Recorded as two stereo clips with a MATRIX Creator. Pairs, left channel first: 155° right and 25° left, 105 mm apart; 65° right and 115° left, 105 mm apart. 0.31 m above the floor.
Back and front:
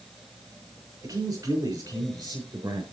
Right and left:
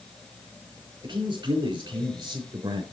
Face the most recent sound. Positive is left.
turn(degrees=70)